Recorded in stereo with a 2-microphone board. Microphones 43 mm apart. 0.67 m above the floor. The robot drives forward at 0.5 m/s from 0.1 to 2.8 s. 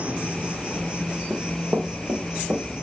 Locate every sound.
0.0 s an insect: 30° right (ahead or behind), 1.1 m; by 2.9 s 15° right (ahead or behind), 2.5 m
1.3 s running footsteps: 60° right (ahead or behind), 1.4 m